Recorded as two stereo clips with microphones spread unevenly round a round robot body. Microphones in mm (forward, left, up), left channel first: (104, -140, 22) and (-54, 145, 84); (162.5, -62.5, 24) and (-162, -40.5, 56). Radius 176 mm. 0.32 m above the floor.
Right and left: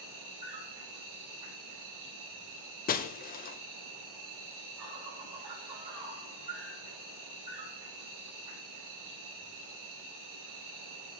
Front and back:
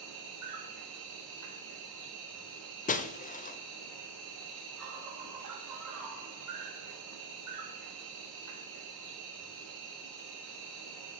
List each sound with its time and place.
0.0 s an insect: 135° left, 3.5 m
2.9 s breaking glass: 45° right, 0.7 m